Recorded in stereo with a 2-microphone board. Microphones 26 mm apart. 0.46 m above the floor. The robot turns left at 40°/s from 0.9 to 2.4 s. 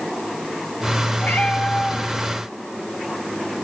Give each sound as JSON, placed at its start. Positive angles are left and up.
{"t": 1.2, "sound": "a cat meowing", "azimuth_deg": 100, "distance_m": 2.5}